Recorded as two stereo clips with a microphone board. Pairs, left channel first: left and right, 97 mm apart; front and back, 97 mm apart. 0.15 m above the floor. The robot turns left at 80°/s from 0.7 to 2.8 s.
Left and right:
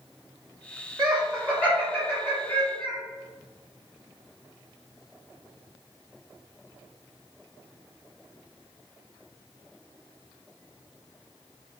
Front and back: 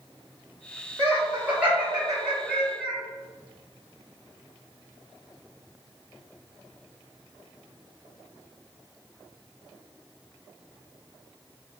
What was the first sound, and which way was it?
Laughter, 170° right.